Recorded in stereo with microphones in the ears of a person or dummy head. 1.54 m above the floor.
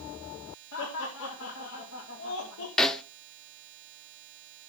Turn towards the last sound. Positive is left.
turn(degrees=5)  # may be behind; listen again after turning